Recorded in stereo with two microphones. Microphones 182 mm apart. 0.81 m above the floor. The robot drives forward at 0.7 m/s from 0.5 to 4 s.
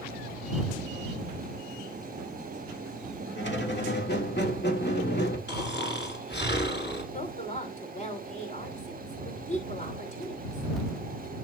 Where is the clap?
I don't hear a clap.